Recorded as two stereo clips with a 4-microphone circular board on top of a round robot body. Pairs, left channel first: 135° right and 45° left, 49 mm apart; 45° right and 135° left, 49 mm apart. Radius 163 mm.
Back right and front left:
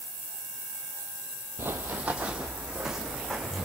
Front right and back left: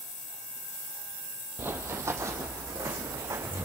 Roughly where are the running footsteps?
Left.